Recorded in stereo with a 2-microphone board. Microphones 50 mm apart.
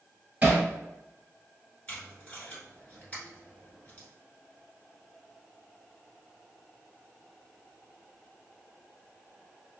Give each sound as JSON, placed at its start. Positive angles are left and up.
{"t": 0.4, "sound": "hammering", "side_deg": -25, "distance_m": 1.3}
{"t": 1.9, "sound": "tape being pulled", "side_deg": 25, "distance_m": 1.6}